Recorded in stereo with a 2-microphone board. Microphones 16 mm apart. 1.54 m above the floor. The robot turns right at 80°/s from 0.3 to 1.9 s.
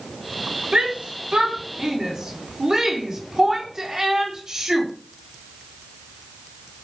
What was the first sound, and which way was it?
A shout, 55° right (ahead or behind).